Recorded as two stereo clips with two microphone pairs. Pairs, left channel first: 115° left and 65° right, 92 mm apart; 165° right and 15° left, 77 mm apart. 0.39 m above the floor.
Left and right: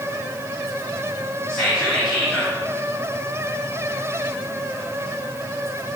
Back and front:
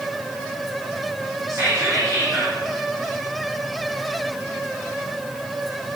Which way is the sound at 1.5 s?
35° left.